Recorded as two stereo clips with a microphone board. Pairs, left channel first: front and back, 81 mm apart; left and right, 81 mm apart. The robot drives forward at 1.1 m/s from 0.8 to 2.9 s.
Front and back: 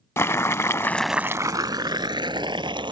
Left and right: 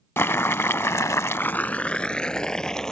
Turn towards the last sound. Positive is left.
turn(degrees=170)